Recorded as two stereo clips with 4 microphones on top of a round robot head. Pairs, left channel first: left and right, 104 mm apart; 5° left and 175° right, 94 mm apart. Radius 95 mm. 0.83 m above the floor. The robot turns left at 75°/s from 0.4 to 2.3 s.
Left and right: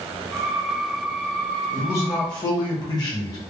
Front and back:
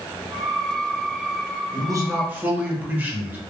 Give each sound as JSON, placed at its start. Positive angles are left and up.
{"t": 1.7, "sound": "a man speaking", "azimuth_deg": 165, "distance_m": 1.1}